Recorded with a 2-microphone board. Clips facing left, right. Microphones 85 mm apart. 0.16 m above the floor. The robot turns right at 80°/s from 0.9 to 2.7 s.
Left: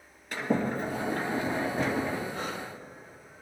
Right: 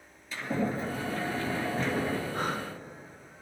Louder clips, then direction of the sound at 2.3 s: Right 3 dB; 45° right (ahead or behind).